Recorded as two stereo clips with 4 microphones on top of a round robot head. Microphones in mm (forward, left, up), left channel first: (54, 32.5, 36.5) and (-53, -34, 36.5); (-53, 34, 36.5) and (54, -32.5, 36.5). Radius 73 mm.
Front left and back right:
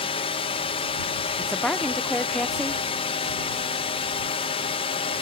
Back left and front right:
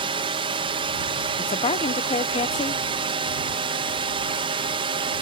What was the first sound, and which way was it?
A drone, 5° left.